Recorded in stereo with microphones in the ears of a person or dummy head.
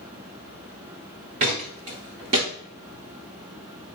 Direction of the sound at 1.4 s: 25° right (ahead or behind).